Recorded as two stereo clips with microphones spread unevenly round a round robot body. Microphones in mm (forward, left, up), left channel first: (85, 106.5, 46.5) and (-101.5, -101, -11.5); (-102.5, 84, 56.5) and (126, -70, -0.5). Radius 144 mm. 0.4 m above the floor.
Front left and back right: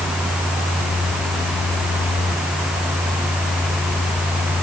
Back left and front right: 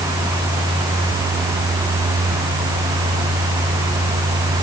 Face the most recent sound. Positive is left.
No sound to turn to.